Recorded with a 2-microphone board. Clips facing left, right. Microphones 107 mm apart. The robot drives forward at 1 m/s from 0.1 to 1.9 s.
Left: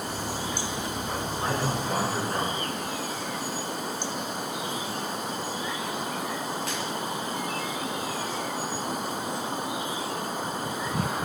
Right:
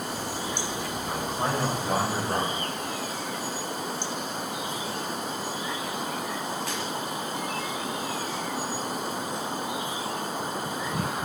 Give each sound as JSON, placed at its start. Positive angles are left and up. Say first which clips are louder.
{"t": 1.1, "sound": "a man speaking", "louder": "right 2 dB", "side_deg": -65, "distance_m": 3.0}